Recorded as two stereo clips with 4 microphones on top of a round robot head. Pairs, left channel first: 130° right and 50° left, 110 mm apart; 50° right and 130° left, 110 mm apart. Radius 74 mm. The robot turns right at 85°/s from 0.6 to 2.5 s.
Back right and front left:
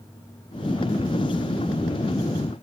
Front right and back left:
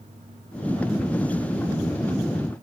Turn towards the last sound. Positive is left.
No sound to turn to.